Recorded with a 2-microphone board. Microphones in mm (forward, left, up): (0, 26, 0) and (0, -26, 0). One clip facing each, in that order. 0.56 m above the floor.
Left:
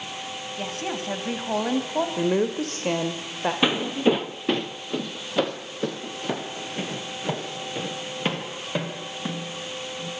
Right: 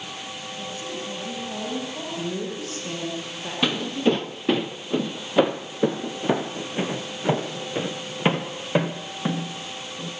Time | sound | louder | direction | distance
0.6 | a woman speaking | left 4 dB | 65° left (ahead or behind) | 3.5 m
2.2 | a woman speaking | left 6 dB | 60° left (ahead or behind) | 2 m
3.6 | footsteps | even | 20° left (ahead or behind) | 0.6 m